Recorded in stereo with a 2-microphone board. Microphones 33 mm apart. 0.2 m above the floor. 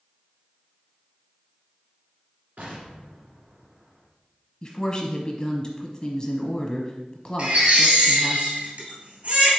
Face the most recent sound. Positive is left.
turn(degrees=-55)  # may be behind; listen again after turning